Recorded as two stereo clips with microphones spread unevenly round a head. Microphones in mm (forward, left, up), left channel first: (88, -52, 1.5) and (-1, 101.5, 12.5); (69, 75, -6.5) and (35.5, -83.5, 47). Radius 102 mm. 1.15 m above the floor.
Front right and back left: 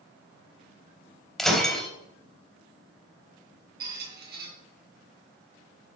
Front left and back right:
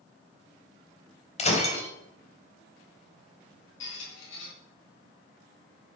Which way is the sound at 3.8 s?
95° left.